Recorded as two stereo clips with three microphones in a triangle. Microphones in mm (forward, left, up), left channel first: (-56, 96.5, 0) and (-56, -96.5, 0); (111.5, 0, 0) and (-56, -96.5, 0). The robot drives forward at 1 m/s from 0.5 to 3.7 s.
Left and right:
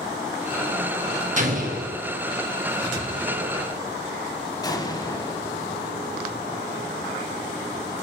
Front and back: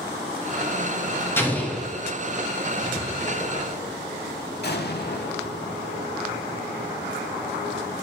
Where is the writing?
30° right, 4.5 m; by 3.6 s 35° right, 3.5 m.